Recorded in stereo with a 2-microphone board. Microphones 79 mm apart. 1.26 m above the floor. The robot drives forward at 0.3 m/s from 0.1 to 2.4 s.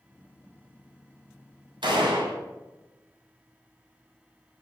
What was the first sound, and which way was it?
A gunshot, 80° right.